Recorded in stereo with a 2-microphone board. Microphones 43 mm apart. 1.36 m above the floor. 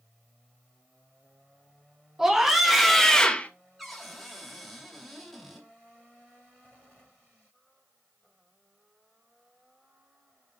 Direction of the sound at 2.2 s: 10° right (ahead or behind).